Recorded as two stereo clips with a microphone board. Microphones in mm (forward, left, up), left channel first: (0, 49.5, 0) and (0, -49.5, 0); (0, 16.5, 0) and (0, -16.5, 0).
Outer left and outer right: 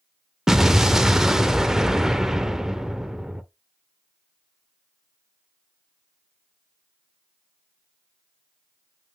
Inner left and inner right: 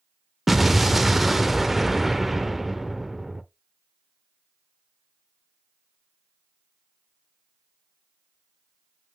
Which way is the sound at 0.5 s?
5° right (ahead or behind).